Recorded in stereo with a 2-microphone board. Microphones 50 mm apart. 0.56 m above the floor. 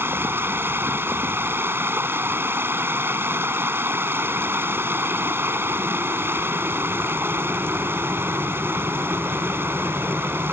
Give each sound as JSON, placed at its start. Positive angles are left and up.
{"t": 0.0, "sound": "running water", "side_deg": -50}